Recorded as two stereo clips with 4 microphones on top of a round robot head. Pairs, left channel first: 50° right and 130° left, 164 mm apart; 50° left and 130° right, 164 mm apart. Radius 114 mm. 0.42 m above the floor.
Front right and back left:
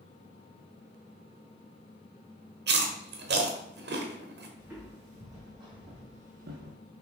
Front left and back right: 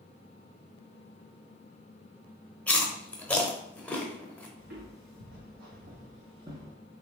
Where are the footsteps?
150° right, 2 m; by 6.8 s 145° left, 0.8 m.